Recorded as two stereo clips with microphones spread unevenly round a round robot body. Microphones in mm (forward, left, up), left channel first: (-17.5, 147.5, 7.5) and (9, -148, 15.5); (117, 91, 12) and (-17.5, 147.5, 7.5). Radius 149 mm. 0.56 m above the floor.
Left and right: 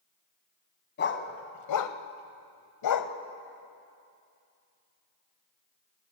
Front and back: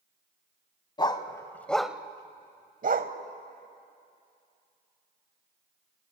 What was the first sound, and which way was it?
A dog barking, 40° left.